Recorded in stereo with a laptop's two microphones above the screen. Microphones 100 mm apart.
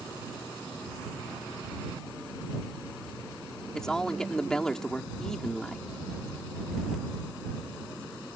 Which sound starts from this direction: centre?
A man speaking, at 3.8 s.